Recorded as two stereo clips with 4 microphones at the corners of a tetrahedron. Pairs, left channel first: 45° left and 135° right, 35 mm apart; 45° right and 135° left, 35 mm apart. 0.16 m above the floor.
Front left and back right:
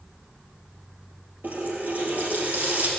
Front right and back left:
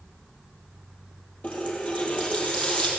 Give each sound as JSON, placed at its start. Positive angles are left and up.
{"t": 1.4, "sound": "a running tap", "azimuth_deg": -95, "distance_m": 3.0}